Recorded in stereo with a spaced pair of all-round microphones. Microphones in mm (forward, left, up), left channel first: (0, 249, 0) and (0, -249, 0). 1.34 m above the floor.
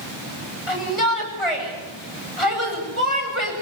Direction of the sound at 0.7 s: 80° left.